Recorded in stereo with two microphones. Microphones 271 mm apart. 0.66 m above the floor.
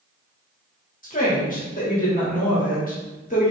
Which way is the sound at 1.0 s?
30° left (ahead or behind).